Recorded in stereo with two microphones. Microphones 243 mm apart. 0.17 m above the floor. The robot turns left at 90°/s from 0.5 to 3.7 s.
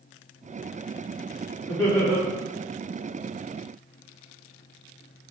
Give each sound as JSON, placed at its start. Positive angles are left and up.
{"t": 1.7, "sound": "laughter", "azimuth_deg": 25, "distance_m": 1.7}